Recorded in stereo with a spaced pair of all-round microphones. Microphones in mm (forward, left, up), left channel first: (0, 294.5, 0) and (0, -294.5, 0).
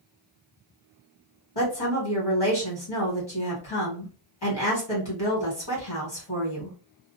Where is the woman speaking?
60° left (ahead or behind), 1.4 m.